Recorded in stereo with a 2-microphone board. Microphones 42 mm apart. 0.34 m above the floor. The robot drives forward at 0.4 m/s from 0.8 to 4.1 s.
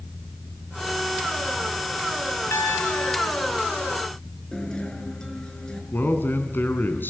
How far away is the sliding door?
I don't hear a sliding door.